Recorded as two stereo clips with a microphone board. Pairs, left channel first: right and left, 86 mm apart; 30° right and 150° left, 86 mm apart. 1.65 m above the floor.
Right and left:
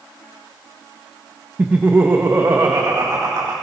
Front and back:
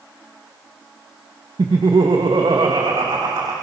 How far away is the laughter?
About 1.7 m.